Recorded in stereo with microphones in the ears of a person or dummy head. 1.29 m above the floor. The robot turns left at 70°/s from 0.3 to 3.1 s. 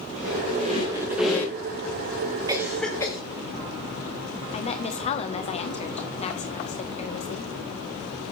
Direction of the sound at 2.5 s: 15° right (ahead or behind).